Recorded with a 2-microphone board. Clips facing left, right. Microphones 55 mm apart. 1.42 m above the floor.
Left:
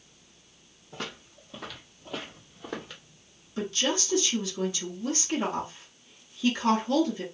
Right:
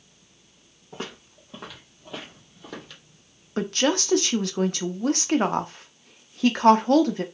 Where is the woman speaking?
60° right (ahead or behind), 0.6 m.